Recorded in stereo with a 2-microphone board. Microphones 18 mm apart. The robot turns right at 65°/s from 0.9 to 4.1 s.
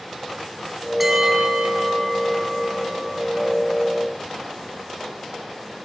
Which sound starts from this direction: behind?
A bell, at 1.0 s.